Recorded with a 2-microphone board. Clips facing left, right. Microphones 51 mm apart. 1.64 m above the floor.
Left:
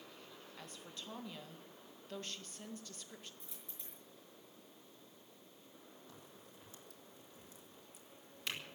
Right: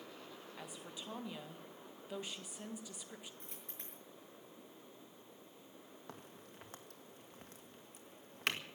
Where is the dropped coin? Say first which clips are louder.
Right 3 dB; 50° right (ahead or behind), 6 m.